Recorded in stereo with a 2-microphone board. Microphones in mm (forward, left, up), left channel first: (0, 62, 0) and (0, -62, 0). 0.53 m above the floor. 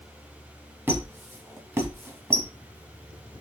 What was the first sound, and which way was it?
A squeak, 20° right (ahead or behind).